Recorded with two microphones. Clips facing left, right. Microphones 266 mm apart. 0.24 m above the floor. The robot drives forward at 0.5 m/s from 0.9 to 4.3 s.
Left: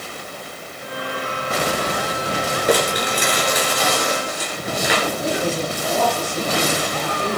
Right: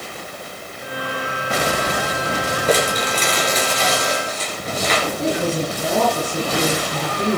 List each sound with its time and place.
2.7 s crumpling: 15° left (ahead or behind), 4 m
5.2 s a woman speaking: 40° right (ahead or behind), 8.5 m